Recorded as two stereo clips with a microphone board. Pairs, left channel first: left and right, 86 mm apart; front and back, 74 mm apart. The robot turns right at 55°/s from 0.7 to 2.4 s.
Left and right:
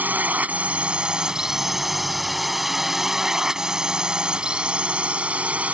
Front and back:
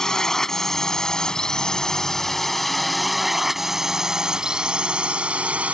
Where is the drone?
70° right; by 5.8 s 140° right.